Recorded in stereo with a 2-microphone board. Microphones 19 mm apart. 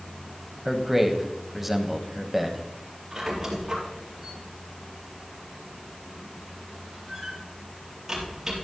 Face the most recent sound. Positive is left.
turn(degrees=-20)  # may be behind; listen again after turning